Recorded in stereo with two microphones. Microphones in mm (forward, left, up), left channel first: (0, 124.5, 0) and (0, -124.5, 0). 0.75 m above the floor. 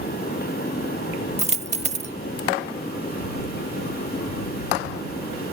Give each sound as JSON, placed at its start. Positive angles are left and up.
{"t": 1.4, "sound": "a dropped coin", "side_deg": -25}